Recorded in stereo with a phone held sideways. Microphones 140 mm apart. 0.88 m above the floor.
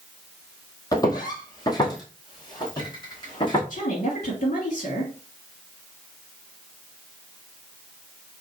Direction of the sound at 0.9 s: 25° left (ahead or behind).